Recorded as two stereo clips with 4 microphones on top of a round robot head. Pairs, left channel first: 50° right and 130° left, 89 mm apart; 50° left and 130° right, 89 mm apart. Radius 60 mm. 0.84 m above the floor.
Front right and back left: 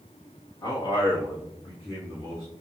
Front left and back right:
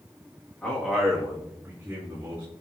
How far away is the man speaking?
About 1.3 m.